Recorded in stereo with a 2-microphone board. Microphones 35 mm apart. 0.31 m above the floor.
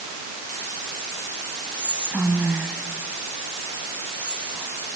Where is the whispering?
50° right (ahead or behind), 3 m.